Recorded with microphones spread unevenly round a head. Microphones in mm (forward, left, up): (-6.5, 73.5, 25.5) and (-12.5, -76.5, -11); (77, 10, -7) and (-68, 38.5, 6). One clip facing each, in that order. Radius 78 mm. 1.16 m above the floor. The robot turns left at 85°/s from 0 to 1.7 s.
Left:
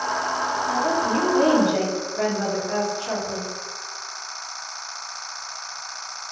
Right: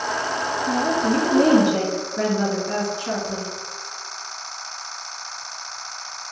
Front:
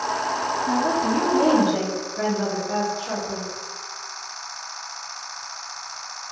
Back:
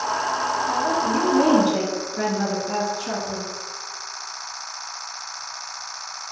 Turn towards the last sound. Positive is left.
turn(degrees=-135)